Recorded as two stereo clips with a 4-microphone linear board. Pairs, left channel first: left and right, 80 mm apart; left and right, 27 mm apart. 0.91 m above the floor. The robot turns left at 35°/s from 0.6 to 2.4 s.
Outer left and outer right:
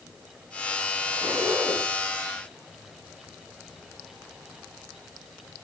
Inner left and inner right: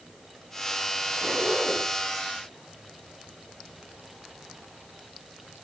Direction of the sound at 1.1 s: 65° right (ahead or behind).